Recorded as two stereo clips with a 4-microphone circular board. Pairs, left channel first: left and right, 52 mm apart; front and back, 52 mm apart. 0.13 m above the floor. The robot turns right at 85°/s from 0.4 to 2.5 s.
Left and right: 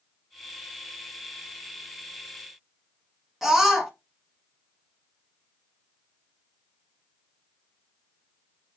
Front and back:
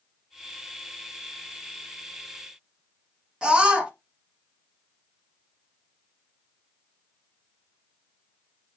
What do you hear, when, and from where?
3.4 s a scream: 165° right, 1.0 m